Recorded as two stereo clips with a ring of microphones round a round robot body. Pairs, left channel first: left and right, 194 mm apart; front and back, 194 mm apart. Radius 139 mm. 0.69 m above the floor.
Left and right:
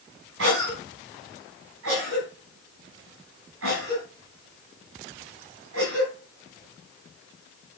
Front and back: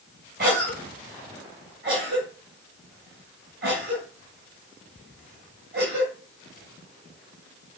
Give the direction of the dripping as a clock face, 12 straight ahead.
I don't hear dripping.